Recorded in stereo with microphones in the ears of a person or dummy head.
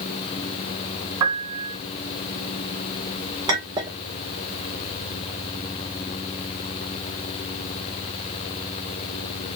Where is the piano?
20° right (ahead or behind), 2.5 m.